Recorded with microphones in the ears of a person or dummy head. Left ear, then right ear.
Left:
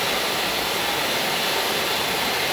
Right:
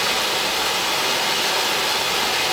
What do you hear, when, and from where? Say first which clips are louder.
0.0 s running water: right 2 dB; 50° right (ahead or behind), 3.5 m